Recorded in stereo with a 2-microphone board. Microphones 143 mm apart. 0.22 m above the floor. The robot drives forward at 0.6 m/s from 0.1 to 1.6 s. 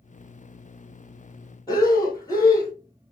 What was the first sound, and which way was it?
Breathing, 25° left (ahead or behind).